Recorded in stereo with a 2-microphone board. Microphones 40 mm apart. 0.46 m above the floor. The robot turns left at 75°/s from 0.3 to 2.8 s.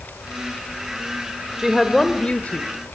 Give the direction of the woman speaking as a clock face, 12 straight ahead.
5 o'clock.